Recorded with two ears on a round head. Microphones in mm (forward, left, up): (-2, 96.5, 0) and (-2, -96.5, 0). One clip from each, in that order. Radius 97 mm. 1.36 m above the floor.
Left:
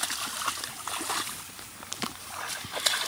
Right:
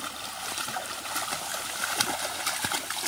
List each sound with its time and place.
Only background noise.